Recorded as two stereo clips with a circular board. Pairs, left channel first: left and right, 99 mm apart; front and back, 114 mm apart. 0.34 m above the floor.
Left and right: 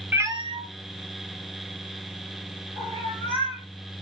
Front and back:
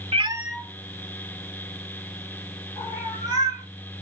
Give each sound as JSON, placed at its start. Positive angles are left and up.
{"t": 0.1, "sound": "a cat meowing", "azimuth_deg": -160, "distance_m": 0.6}